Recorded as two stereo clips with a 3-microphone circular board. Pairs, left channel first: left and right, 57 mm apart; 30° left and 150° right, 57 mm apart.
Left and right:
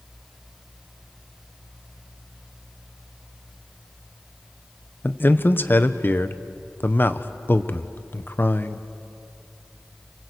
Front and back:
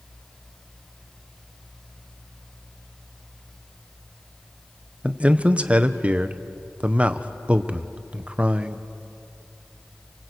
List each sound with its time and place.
5.0 s a man speaking: 145° left, 1.0 m